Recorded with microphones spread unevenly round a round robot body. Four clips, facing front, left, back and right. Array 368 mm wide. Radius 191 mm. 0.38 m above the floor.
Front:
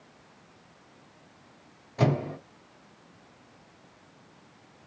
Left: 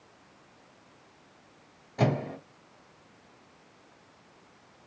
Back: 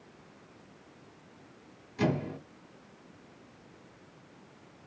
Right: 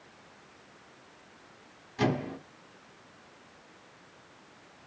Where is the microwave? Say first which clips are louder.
Left 1 dB, front 3 dB; 30° left, 3 m.